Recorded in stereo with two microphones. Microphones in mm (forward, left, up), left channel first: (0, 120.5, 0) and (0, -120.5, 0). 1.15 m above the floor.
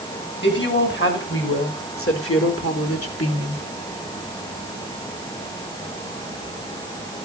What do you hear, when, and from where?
0.4 s a woman speaking: 50° left (ahead or behind), 5.5 m; by 3.6 s 75° left (ahead or behind), 2.5 m